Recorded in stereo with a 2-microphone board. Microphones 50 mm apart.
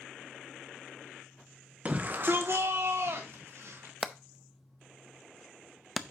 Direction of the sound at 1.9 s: 25° right (ahead or behind).